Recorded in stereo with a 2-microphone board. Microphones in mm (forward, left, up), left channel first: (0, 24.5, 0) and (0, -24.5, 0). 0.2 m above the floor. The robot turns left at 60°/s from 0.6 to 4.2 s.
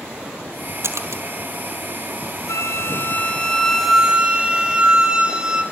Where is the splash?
60° right (ahead or behind), 2.5 m; by 1.2 s 80° right, 2.5 m.